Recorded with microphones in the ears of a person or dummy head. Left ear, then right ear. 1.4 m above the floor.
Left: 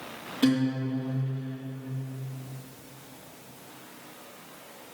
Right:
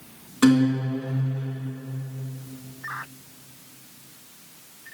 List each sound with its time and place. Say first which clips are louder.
0.4 s a guitar: right 6 dB; 35° right (ahead or behind), 2 m